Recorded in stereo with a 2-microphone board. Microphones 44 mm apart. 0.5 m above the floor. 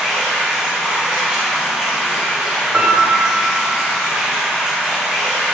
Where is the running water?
15° right (ahead or behind), 1.6 m.